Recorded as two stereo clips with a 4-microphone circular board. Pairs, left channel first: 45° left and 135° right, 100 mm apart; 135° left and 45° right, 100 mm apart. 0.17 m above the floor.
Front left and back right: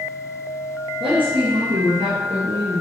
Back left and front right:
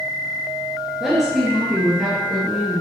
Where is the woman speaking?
130° right, 2.5 m; by 2.8 s 135° right, 3.5 m.